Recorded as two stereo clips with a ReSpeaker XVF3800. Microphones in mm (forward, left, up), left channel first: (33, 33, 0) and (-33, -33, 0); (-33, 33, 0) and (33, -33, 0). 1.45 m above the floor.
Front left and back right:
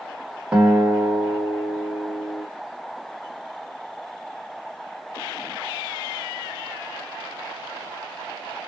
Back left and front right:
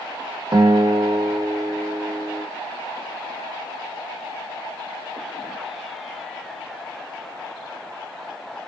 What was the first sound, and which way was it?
A guitar, 60° right.